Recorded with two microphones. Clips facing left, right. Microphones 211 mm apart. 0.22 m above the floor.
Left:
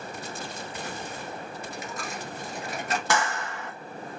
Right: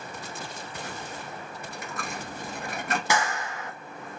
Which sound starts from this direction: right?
A dropped coin, at 1.6 s.